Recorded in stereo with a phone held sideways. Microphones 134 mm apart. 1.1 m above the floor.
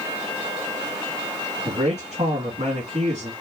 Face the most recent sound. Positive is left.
turn(degrees=-60)  # may be behind; listen again after turning